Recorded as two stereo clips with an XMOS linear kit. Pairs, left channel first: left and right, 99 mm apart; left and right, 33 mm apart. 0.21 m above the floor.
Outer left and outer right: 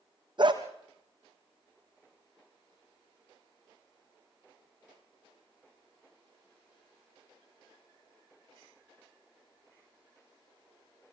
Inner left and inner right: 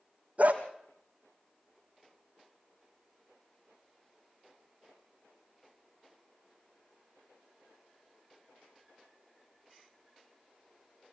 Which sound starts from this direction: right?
A dog barking, at 0.4 s.